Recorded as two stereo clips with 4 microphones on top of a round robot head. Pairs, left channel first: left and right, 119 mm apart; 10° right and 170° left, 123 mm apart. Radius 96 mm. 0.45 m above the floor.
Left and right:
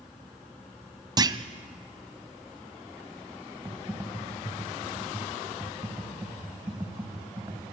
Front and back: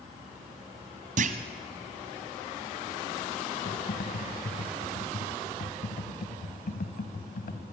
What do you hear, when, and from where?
1.2 s a clunk: 150° right, 1.0 m
3.6 s typing on a keyboard: 15° right, 1.9 m